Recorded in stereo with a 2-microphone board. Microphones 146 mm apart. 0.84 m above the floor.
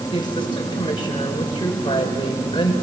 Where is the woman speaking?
35° left (ahead or behind), 3.5 m.